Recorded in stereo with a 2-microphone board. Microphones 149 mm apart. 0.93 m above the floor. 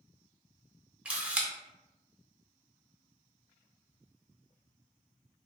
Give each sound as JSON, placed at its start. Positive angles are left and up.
{"t": 1.1, "sound": "a camera shutter", "side_deg": -10, "distance_m": 0.6}